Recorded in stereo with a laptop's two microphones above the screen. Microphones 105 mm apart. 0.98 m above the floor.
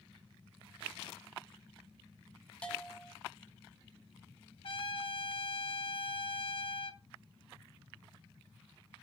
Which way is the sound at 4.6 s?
55° left (ahead or behind).